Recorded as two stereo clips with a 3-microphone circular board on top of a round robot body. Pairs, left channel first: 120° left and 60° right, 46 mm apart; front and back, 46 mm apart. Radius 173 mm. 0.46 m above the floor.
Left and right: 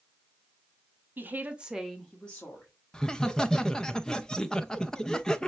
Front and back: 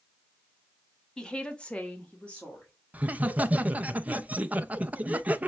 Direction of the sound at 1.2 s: 65° right.